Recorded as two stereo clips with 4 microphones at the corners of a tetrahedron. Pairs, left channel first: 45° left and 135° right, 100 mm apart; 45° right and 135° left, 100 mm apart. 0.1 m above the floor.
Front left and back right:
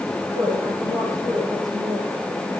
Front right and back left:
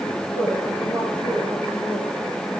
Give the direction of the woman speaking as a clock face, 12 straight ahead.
6 o'clock.